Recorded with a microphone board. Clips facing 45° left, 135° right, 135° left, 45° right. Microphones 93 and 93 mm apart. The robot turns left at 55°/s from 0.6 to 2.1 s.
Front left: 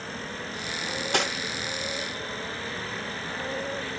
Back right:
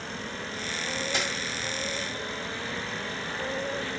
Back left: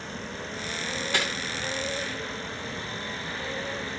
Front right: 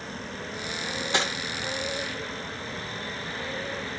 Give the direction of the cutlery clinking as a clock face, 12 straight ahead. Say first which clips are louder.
Front left 4 dB, front right 2 dB; 11 o'clock.